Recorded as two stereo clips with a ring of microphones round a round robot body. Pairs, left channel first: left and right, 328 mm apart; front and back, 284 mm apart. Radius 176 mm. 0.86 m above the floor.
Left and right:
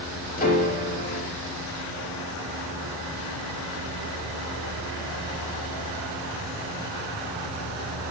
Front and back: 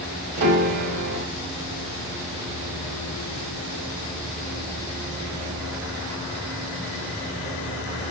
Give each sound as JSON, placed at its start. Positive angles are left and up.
{"t": 0.4, "sound": "a piano", "azimuth_deg": 155, "distance_m": 4.0}